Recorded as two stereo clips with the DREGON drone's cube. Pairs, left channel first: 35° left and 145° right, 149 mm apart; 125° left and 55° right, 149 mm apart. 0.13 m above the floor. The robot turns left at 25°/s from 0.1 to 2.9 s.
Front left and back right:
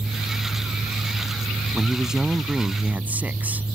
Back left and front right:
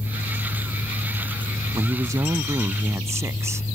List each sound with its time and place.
1.7 s a man speaking: 55° right; by 3.6 s 85° right